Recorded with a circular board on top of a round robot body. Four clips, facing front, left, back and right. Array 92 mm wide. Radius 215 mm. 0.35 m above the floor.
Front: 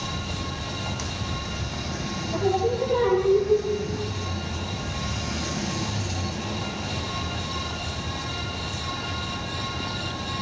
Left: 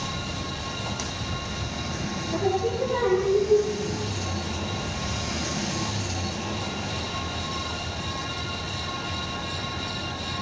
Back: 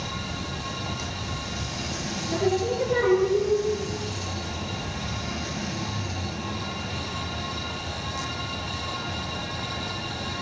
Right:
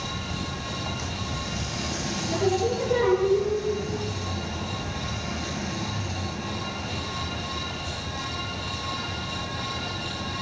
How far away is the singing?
About 9.5 m.